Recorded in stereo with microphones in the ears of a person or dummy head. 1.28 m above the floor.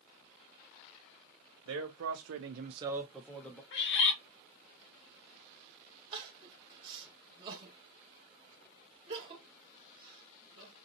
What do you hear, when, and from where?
1.6 s a man speaking: 65° right (ahead or behind), 0.9 m; by 3.6 s 10° left (ahead or behind), 1.1 m
3.7 s a bird: 65° left (ahead or behind), 0.8 m
6.1 s crying: 25° right (ahead or behind), 1.1 m